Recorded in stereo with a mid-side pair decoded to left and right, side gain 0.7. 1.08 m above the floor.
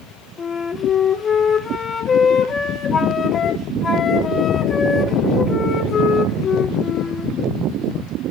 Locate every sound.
0.4 s a flute: 30° left, 3 m